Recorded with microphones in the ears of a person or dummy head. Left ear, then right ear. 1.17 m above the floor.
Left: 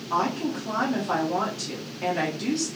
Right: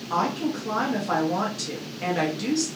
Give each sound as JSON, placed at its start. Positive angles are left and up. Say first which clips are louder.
{"t": 0.1, "sound": "a woman speaking", "louder": "even", "side_deg": -10, "distance_m": 0.6}